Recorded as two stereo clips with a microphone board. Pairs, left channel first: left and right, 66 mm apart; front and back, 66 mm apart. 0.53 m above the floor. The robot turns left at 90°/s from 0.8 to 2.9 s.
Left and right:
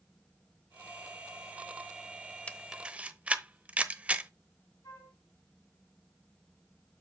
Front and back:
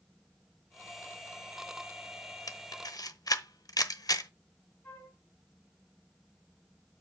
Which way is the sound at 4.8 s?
60° left.